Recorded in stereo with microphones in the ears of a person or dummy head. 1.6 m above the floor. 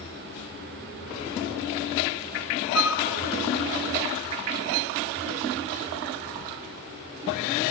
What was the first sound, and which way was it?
A flute, 55° right (ahead or behind).